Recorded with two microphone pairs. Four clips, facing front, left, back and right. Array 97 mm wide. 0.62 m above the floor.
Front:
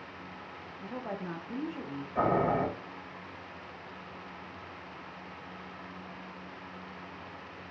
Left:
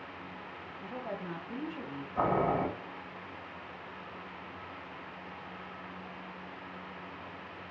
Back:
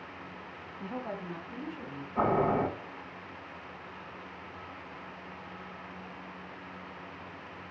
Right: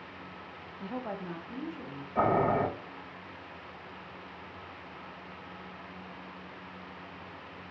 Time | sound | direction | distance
0.8 | a woman speaking | 130° right | 0.6 m
2.1 | boiling | 65° right | 3 m